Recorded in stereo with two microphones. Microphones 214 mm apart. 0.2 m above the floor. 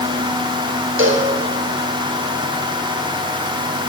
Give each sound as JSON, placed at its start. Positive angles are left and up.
{"t": 1.0, "sound": "a cowbell", "side_deg": -70, "distance_m": 4.5}